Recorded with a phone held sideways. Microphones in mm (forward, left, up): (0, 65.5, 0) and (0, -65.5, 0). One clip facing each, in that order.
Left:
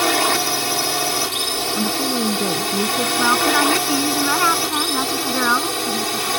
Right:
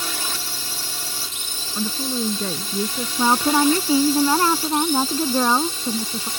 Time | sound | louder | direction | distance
0.0 | a drone | left 13 dB | 70° left (ahead or behind) | ?
1.8 | a woman speaking | left 3 dB | 10° left (ahead or behind) | ?
3.2 | a woman speaking | right 2 dB | 25° right (ahead or behind) | ?